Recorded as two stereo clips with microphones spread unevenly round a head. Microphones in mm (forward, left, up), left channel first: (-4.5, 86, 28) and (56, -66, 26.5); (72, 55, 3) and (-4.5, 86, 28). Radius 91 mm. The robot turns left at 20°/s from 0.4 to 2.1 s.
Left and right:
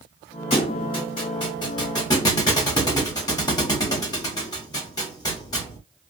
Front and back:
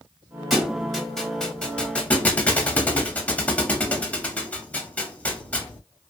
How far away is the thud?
About 0.8 m.